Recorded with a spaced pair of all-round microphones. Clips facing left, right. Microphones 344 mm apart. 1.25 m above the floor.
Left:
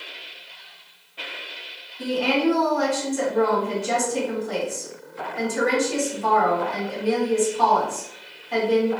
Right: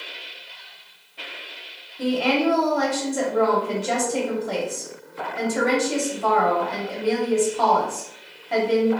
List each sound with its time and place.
2.0 s a woman speaking: 75° right (ahead or behind), 1.2 m